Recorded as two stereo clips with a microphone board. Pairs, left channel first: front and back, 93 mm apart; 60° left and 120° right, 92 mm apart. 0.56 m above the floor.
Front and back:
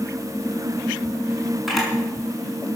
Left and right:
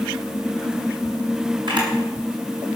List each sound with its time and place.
1.7 s a camera shutter: 90° right, 6 m